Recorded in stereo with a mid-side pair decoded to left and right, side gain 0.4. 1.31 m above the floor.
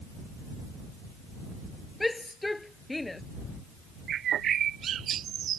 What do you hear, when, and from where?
2.0 s a shout: 15° left; by 3.2 s 20° left
4.1 s a bird: 70° right